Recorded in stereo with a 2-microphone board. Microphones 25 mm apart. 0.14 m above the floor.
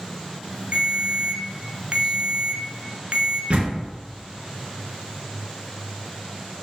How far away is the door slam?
About 1.8 m.